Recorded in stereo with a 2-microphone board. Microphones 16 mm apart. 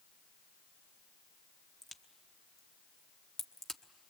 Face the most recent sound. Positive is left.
turn(degrees=25)  # may be behind; listen again after turning